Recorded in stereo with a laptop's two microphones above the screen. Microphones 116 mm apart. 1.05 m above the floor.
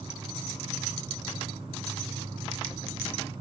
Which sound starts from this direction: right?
An insect, at 0.0 s.